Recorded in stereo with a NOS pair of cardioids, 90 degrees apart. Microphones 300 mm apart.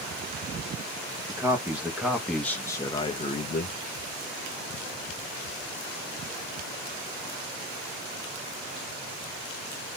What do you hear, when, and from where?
1.3 s a man speaking: 10° right, 1.7 m; by 3.8 s 35° left, 0.9 m